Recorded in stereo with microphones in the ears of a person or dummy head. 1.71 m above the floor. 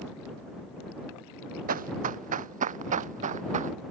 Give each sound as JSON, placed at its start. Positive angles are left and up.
{"t": 1.7, "sound": "running footsteps", "side_deg": -50}